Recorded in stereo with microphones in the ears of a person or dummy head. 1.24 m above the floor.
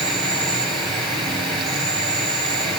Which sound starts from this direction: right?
An insect, at 0.0 s.